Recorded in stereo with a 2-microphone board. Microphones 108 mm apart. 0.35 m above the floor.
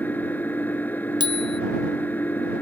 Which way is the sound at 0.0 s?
15° left (ahead or behind).